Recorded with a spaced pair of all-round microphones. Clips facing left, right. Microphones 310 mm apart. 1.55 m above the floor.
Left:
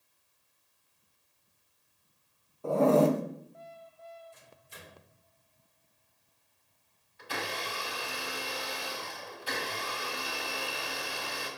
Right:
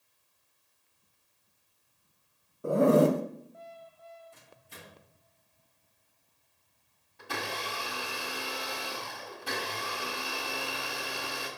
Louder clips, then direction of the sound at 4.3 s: Right 1 dB; 65° right (ahead or behind).